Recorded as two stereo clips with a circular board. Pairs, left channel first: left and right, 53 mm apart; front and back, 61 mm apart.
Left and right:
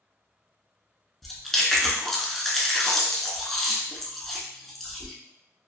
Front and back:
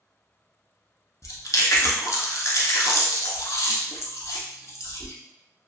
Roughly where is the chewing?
Ahead.